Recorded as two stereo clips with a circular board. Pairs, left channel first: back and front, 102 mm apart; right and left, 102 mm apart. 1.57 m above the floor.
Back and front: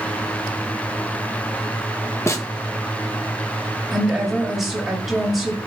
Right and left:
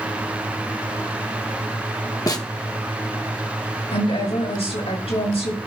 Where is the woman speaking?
90° right, 6.5 m.